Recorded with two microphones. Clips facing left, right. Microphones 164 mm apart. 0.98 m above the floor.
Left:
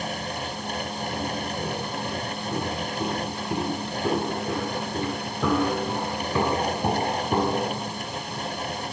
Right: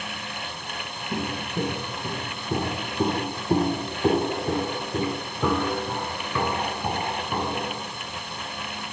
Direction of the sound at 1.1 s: 50° right (ahead or behind).